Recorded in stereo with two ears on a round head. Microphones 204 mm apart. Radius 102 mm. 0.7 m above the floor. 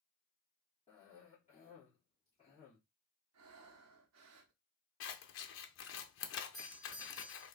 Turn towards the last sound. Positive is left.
turn(degrees=0)  # may be behind; listen again after turning